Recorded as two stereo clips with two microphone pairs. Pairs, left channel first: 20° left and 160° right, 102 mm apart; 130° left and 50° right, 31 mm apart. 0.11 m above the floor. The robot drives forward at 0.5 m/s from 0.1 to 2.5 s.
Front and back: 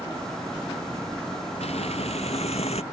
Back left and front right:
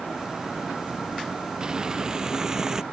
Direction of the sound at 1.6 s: 15° left.